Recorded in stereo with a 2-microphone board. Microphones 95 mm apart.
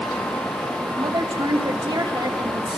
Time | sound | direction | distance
1.0 | a woman speaking | 55° right (ahead or behind) | 3 m